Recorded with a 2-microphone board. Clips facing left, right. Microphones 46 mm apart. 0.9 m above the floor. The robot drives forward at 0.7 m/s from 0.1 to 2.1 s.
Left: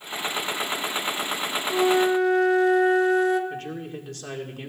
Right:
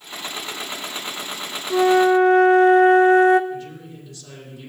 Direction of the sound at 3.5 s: 55° left (ahead or behind).